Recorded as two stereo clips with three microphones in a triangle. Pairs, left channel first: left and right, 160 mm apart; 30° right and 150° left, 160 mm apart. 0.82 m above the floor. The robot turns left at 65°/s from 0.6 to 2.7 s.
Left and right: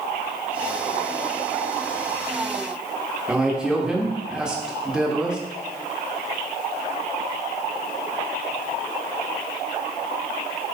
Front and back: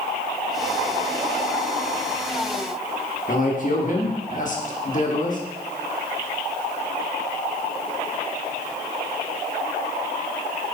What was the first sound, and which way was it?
A man speaking, 5° right.